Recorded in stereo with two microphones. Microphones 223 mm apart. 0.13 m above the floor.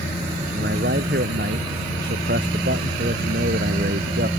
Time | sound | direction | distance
0.5 | a man speaking | 55° right (ahead or behind) | ?